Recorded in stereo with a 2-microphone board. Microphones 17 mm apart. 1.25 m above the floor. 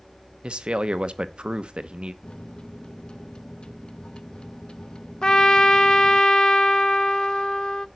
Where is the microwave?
65° left (ahead or behind), 0.9 m.